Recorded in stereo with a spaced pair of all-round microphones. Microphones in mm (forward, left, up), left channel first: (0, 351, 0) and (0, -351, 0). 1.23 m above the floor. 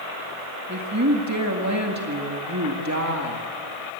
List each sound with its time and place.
0.7 s a woman speaking: 25° right (ahead or behind), 1.9 m